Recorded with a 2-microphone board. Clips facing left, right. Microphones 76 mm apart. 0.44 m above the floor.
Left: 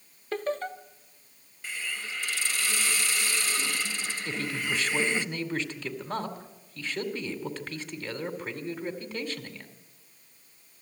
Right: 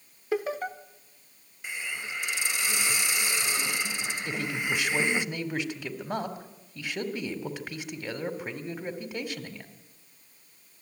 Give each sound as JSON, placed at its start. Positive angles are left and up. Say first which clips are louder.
{"t": 0.3, "sound": "laughter", "louder": "right 1 dB", "side_deg": -10, "distance_m": 0.8}
{"t": 1.6, "sound": "a hiss", "louder": "right 1 dB", "side_deg": -15, "distance_m": 0.7}
{"t": 4.2, "sound": "a man speaking", "louder": "right 1 dB", "side_deg": -10, "distance_m": 2.5}